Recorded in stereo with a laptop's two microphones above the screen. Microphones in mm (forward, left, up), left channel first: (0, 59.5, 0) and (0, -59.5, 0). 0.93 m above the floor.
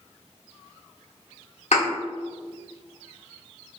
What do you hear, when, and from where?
1.7 s a thud: 70° left (ahead or behind), 1.0 m